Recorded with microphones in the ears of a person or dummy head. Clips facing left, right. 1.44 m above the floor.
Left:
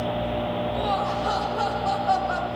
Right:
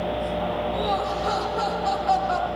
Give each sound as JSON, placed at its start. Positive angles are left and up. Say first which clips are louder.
{"t": 0.7, "sound": "laughter", "louder": "even", "side_deg": -30, "distance_m": 5.5}